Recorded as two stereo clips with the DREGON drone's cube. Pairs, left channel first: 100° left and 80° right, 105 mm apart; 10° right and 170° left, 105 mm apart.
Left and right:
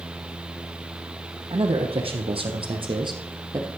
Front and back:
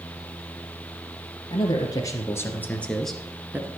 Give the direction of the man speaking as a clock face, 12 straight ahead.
2 o'clock.